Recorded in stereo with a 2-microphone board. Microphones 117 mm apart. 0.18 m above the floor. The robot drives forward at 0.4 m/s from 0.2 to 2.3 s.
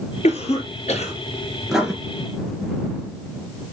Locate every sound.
0.2 s a cough: 70° left (ahead or behind), 3.5 m
1.7 s writing: 5° right (ahead or behind), 2.5 m